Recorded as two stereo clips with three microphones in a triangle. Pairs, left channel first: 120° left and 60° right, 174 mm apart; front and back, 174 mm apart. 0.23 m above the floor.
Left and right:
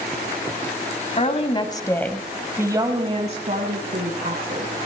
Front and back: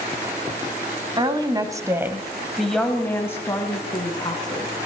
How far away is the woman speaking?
About 1.5 m.